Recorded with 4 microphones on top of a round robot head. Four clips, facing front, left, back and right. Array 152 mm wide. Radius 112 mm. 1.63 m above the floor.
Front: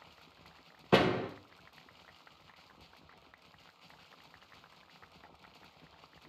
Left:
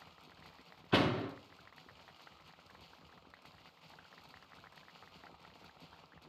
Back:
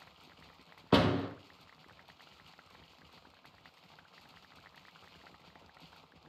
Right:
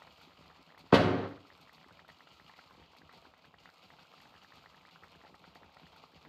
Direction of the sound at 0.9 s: 95° right.